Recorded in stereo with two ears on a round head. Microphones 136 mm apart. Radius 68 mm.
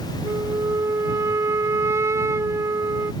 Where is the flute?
20° right (ahead or behind).